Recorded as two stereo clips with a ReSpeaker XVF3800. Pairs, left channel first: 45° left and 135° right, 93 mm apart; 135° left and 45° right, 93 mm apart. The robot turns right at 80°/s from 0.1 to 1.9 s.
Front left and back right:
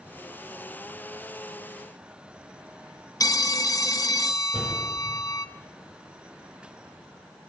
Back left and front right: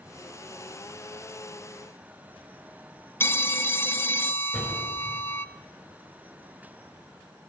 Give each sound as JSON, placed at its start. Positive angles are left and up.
{"t": 3.2, "sound": "a phone ringing", "azimuth_deg": 80, "distance_m": 0.6}
{"t": 4.5, "sound": "a door slam", "azimuth_deg": -135, "distance_m": 4.5}